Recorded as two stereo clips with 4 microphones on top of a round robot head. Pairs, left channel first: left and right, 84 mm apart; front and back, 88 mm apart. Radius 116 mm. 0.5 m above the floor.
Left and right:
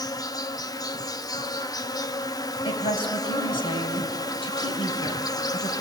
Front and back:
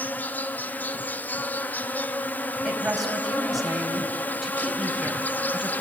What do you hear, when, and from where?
0.0 s an insect: 65° left, 0.8 m
2.6 s a woman speaking: 90° left, 3.5 m